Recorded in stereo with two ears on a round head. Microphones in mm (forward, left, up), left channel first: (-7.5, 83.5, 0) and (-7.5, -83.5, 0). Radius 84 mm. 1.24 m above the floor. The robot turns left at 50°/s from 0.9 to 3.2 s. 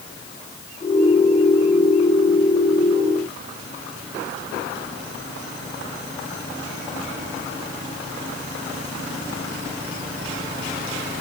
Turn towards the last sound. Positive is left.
No sound to turn to.